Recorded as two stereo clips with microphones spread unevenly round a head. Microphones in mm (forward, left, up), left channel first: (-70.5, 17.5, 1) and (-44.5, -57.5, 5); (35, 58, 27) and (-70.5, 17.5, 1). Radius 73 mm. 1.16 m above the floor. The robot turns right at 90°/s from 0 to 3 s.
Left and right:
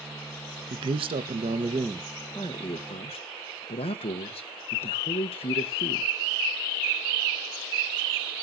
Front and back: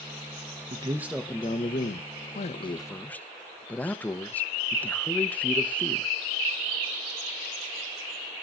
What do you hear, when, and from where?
0.7 s a man speaking: 110° right, 0.9 m; by 6.1 s 100° left, 0.9 m